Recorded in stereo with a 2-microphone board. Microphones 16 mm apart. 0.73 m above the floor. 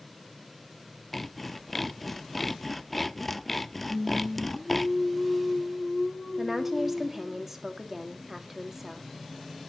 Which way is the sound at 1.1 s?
5° left (ahead or behind).